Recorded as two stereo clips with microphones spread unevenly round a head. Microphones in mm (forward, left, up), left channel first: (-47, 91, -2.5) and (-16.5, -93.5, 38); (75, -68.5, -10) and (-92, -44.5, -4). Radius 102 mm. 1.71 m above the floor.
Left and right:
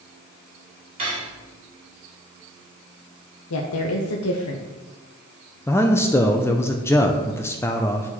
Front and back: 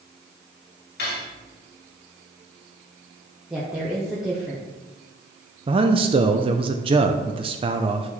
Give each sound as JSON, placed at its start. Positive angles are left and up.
{"t": 1.0, "sound": "cutlery clinking", "azimuth_deg": -25, "distance_m": 2.5}
{"t": 3.5, "sound": "a woman speaking", "azimuth_deg": 85, "distance_m": 0.9}
{"t": 5.7, "sound": "a man speaking", "azimuth_deg": -175, "distance_m": 0.6}